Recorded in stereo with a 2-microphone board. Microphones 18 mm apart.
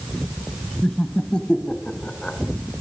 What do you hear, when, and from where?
0.8 s laughter: 60° left (ahead or behind), 2.5 m; by 2.4 s 70° left (ahead or behind), 3.5 m